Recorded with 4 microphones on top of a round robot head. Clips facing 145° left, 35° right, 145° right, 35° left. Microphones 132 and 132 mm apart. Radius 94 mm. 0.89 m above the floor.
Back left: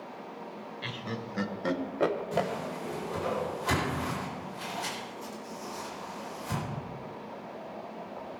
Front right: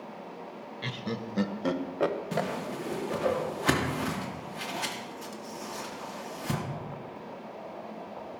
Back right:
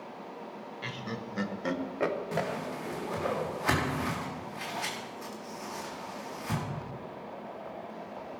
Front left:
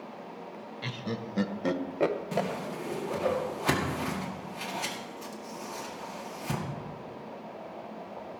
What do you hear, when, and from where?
0.8 s laughter: 10° right, 1.0 m; by 2.5 s 80° left, 0.9 m
2.3 s a whoosh: 30° right, 2 m